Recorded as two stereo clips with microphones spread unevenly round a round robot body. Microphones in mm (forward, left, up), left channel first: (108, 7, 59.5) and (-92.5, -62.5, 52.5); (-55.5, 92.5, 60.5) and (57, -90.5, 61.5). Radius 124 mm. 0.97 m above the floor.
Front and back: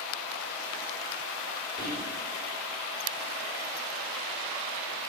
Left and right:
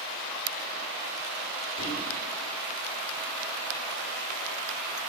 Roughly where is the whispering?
Behind left.